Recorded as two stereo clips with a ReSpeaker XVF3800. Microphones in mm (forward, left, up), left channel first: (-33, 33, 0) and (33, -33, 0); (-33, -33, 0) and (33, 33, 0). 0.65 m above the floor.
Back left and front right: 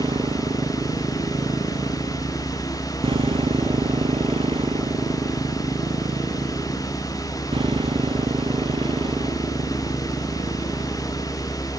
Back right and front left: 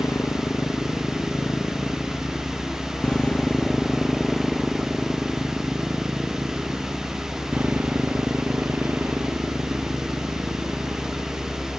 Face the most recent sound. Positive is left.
turn(degrees=-15)